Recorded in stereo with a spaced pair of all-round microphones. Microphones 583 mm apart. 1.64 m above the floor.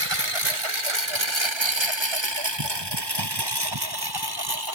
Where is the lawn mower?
55° right (ahead or behind); by 4.8 s 35° right (ahead or behind).